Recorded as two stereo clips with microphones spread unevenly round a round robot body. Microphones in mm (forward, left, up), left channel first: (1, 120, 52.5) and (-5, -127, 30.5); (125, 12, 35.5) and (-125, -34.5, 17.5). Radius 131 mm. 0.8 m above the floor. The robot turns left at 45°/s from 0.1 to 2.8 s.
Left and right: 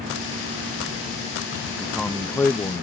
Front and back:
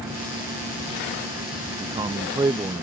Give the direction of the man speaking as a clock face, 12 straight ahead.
5 o'clock.